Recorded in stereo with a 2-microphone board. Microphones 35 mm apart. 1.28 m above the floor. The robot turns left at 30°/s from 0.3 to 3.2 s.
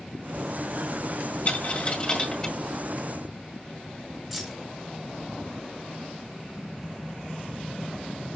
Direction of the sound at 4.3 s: Centre (ahead or behind).